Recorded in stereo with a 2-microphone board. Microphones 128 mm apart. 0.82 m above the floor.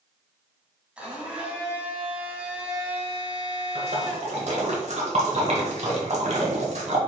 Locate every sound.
1.0 s a blender: 10° right (ahead or behind), 1.7 m
3.8 s a splash: 60° right (ahead or behind), 1.3 m